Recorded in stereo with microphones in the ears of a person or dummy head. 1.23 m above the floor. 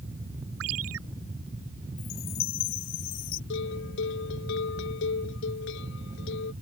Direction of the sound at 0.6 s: 75° right (ahead or behind).